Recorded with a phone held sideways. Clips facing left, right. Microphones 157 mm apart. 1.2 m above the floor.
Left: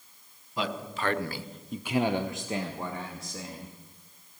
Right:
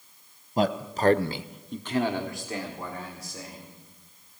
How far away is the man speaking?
About 1.0 m.